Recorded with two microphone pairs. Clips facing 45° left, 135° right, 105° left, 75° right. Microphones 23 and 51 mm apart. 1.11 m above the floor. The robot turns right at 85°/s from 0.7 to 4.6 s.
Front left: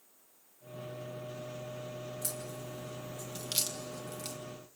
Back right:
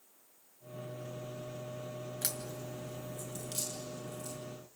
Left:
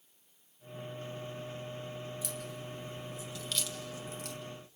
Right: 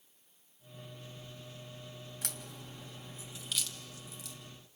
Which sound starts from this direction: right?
A crack, at 2.2 s.